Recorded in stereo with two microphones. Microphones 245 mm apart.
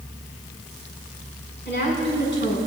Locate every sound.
1.6 s a woman speaking: 50° left (ahead or behind), 6.5 m